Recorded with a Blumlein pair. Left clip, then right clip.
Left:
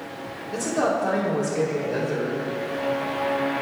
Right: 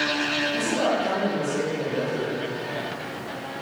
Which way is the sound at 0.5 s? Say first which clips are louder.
Even; 25° left.